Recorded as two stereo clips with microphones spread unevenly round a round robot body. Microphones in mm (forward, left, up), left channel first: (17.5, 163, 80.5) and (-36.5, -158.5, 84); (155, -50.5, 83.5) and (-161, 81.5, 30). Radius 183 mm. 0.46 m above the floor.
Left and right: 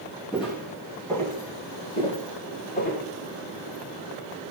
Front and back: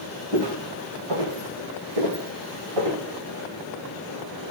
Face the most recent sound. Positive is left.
turn(degrees=140)